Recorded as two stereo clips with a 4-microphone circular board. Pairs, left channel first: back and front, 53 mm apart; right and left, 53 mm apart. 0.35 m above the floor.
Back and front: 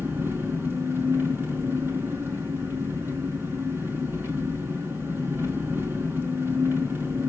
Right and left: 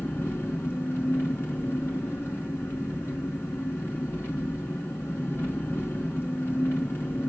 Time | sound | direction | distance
0.0 | an engine running | 45° right | 4 m